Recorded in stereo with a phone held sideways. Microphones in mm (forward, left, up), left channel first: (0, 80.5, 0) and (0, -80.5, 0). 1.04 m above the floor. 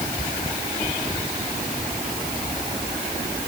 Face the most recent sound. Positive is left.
No sound to turn to.